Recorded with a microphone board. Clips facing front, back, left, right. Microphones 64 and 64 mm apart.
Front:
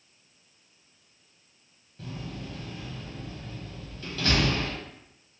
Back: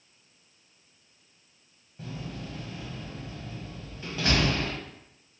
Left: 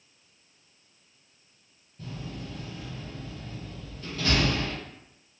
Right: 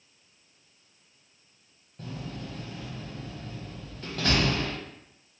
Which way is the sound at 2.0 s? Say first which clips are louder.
Even, right 1 dB; 110° right.